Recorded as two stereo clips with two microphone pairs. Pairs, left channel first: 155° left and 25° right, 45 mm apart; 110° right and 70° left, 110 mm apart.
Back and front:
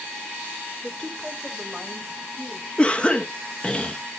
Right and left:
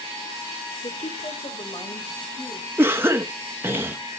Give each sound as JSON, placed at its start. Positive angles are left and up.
{"t": 0.8, "sound": "a woman speaking", "azimuth_deg": -130, "distance_m": 2.0}
{"t": 2.8, "sound": "a cough", "azimuth_deg": 115, "distance_m": 0.8}